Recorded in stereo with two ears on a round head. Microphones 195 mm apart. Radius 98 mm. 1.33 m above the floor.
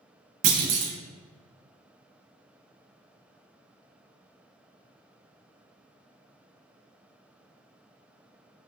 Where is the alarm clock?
No alarm clock in this recording.